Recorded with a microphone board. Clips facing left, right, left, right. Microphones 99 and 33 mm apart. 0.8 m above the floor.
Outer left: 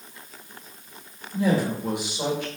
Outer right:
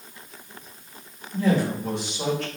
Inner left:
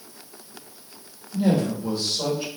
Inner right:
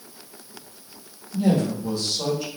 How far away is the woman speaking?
About 1.4 m.